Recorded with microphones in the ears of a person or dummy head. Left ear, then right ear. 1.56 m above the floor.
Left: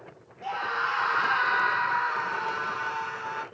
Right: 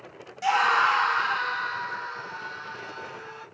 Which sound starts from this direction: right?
A scream, at 0.4 s.